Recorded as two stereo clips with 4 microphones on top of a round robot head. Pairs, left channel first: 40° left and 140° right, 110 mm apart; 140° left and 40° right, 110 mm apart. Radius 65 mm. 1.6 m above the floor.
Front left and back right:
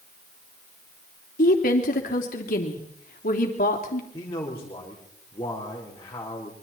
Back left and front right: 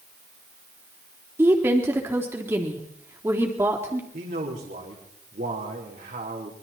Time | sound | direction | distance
1.4 | a woman speaking | 30° left | 3.5 m
4.1 | a man speaking | 25° right | 4 m